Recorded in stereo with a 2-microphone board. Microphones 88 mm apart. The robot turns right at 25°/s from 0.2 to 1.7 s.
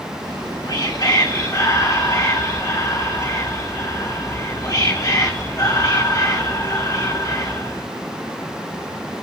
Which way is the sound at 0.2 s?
75° left.